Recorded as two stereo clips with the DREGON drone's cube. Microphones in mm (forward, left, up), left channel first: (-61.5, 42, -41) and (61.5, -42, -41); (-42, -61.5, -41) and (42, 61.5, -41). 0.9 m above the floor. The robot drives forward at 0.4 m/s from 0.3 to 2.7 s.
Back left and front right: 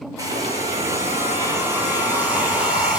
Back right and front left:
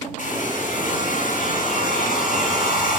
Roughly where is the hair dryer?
Right.